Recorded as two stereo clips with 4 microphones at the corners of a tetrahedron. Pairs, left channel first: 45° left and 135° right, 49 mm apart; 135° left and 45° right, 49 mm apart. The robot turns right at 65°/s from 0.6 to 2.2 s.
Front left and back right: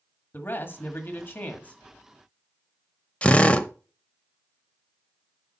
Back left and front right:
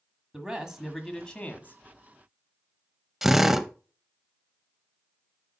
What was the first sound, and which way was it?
A man speaking, 25° left.